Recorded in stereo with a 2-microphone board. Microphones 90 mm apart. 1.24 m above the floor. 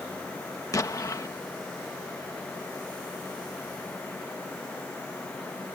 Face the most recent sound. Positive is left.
turn(degrees=40)  # may be behind; listen again after turning